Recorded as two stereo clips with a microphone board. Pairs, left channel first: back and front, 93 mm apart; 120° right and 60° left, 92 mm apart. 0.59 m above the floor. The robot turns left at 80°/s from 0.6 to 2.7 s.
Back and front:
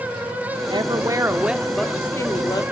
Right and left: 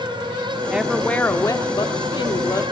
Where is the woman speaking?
15° right, 1.0 m; by 2.6 s 165° right, 1.0 m.